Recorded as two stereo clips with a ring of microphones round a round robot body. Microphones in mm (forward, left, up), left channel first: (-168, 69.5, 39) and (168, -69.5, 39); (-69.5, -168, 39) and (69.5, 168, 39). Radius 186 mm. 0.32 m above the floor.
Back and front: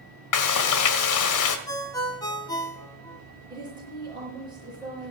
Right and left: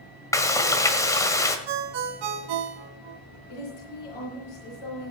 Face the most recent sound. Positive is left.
turn(degrees=-100)